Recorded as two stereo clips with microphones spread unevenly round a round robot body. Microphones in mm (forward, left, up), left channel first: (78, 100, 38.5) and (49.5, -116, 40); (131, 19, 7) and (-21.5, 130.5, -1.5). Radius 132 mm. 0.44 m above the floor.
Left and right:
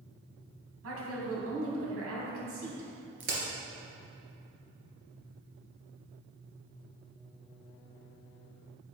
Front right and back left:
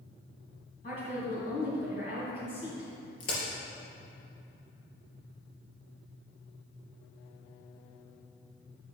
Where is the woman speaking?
100° right, 3 m.